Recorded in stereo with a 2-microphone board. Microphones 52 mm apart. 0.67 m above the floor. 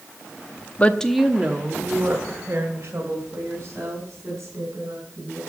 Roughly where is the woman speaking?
Left.